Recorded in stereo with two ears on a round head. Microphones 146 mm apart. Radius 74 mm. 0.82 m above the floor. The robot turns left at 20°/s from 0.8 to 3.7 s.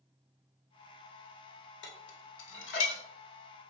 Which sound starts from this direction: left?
Dishes clattering, at 1.8 s.